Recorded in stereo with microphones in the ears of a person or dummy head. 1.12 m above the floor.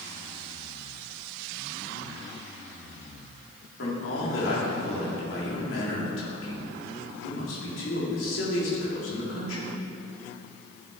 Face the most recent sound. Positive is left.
turn(degrees=65)  # may be behind; listen again after turning